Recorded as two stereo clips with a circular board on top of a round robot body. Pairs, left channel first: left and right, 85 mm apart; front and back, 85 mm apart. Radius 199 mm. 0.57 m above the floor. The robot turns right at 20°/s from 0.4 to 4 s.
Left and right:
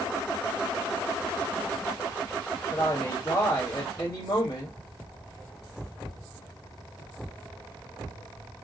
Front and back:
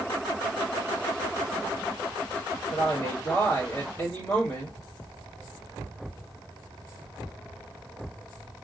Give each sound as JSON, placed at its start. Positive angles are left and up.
{"t": 2.7, "sound": "a woman speaking", "azimuth_deg": 30, "distance_m": 2.5}